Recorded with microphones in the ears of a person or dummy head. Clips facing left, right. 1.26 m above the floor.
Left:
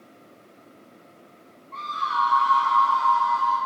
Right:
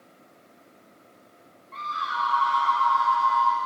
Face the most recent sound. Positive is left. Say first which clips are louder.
# left 3 dB
turn(degrees=-15)  # may be behind; listen again after turning